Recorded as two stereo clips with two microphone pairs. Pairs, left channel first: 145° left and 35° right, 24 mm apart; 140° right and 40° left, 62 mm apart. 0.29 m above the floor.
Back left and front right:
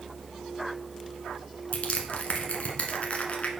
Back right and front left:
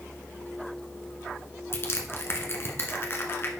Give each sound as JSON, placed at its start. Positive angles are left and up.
{"t": 1.7, "sound": "crushing", "azimuth_deg": 175, "distance_m": 1.1}